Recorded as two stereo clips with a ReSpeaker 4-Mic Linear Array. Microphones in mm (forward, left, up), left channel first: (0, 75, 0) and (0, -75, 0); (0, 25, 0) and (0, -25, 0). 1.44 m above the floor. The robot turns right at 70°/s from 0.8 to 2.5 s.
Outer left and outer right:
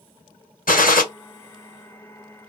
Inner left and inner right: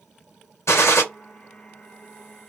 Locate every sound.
0.7 s a gunshot: 75° left (ahead or behind), 0.8 m; by 1.0 s 80° left, 0.8 m